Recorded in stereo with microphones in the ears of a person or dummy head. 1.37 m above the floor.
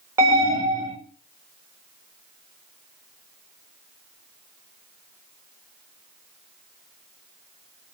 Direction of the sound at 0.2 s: 15° right (ahead or behind).